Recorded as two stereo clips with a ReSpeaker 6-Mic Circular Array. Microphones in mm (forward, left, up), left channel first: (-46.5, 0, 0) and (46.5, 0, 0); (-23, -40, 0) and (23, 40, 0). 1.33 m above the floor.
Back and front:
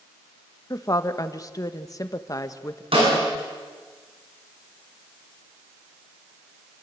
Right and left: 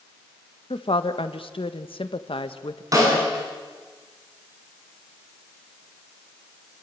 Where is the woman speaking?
130° right, 1.5 m.